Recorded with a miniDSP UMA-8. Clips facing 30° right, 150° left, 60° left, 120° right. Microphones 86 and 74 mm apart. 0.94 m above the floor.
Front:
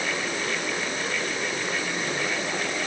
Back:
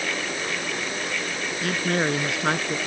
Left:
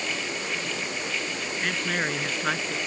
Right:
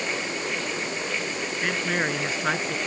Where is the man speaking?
160° left.